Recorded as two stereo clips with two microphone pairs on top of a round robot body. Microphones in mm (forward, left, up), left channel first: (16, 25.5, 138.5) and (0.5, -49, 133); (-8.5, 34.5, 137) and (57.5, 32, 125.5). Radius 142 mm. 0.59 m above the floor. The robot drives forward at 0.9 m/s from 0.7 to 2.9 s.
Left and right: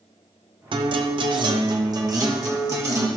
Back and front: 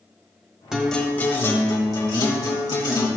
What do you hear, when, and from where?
0.7 s a guitar: 85° right, 0.8 m; by 3.1 s 160° right, 2 m